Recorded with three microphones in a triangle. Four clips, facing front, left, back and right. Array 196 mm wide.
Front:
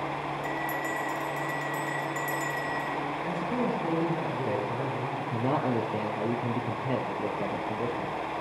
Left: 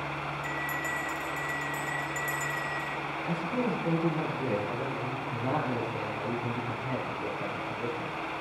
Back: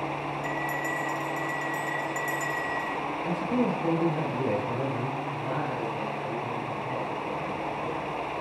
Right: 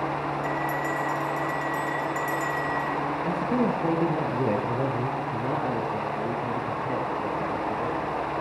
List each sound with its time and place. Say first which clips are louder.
0.4 s a bell: right 7 dB, back 1 dB; 80° right, 4.5 m
3.2 s a man speaking: right 5 dB, back 4 dB; 100° right, 8 m
5.2 s a man speaking: right 4 dB, front 2 dB; 20° right, 8 m